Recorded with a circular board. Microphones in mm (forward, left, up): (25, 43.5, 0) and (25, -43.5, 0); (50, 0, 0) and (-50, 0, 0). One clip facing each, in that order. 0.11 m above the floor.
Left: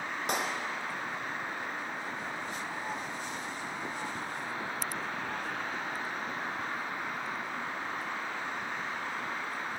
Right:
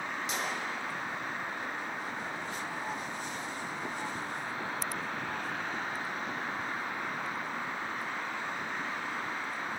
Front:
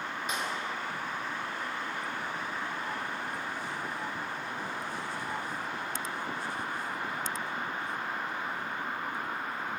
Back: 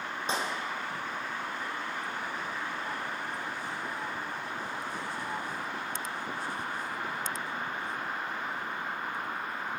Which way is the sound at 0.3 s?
120° left.